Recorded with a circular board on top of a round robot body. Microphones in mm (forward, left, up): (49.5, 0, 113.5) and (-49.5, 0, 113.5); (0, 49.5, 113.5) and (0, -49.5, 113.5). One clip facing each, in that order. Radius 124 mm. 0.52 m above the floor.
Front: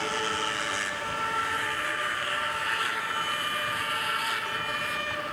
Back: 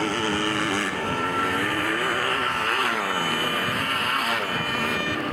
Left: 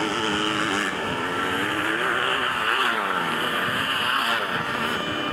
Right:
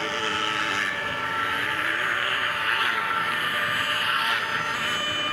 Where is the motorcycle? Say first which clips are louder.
Back 6 dB, left 4 dB; 140° left; by 5.3 s 145° left.